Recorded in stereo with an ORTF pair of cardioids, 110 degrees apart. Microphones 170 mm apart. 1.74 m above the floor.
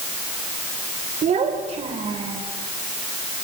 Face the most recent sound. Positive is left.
turn(degrees=-35)